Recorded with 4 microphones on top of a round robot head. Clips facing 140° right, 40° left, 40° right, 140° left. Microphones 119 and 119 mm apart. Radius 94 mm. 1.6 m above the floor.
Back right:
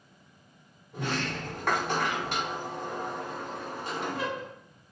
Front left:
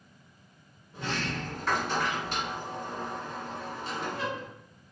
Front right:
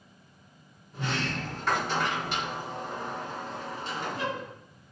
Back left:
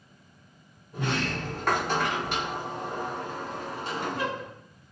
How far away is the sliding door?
About 0.5 m.